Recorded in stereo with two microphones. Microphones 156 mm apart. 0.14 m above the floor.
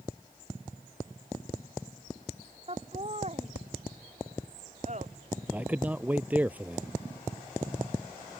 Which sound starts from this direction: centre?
A man speaking, at 5.5 s.